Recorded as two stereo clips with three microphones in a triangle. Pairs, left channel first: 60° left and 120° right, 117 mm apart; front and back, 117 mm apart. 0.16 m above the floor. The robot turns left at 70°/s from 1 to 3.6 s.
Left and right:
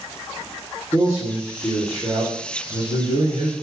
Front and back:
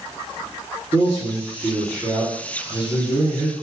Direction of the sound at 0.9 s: 30° left.